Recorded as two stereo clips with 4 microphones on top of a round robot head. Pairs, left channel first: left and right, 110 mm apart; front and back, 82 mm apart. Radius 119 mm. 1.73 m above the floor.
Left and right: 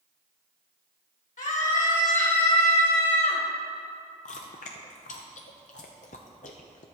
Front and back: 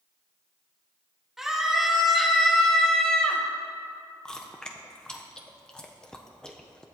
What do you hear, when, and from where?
1.4 s a scream: 90° left, 2.5 m; by 3.4 s 75° left, 1.4 m
4.2 s chewing: 75° left, 0.6 m